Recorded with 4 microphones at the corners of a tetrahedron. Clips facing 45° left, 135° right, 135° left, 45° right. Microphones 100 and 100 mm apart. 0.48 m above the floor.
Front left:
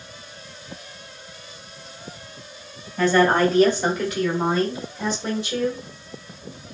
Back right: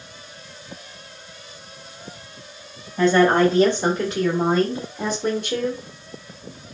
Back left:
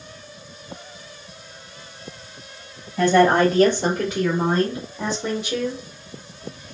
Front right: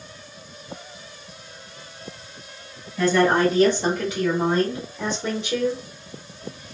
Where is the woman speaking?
150° left, 1.5 m; by 5.8 s 130° right, 1.3 m.